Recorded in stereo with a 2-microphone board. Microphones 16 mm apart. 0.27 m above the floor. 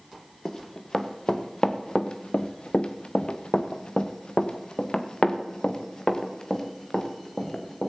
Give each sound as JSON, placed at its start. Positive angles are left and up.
{"t": 0.5, "sound": "running footsteps", "side_deg": 25, "distance_m": 1.9}